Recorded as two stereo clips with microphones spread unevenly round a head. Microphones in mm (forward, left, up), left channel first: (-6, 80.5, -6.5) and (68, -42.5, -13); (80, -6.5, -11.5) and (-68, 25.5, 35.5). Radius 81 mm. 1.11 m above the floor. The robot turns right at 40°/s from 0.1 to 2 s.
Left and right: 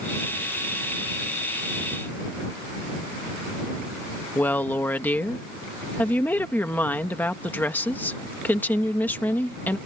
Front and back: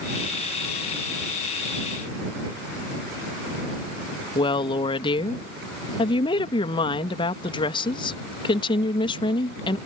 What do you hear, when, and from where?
4.3 s a woman speaking: 45° left